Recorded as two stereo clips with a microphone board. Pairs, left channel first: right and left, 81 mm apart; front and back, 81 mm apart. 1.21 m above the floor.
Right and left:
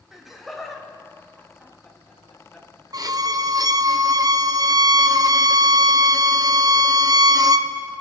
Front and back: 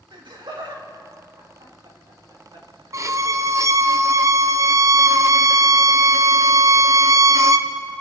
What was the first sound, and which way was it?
Laughter, 175° left.